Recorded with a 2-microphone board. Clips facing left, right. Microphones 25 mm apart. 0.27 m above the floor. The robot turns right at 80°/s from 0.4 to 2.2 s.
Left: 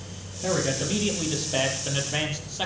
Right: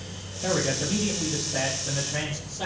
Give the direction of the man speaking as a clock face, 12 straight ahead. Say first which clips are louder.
Even; 12 o'clock.